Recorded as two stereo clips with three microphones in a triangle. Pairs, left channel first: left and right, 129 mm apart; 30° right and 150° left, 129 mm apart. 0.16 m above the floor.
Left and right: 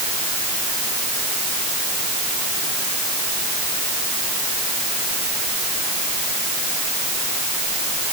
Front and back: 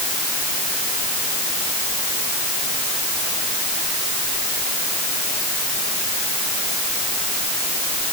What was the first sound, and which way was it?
Only background noise.